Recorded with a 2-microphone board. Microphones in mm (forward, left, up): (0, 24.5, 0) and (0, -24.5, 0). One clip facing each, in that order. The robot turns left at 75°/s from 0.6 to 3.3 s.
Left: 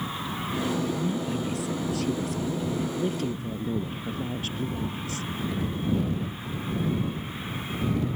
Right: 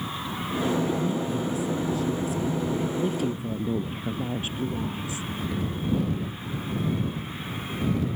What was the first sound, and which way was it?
A woman speaking, 160° left.